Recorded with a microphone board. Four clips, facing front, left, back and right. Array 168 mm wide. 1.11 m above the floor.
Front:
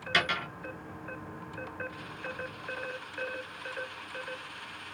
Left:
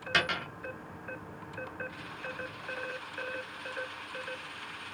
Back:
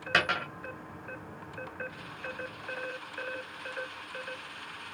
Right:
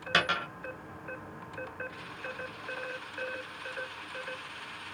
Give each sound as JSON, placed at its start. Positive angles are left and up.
{"t": 0.1, "sound": "a dropped coin", "azimuth_deg": -145, "distance_m": 1.4}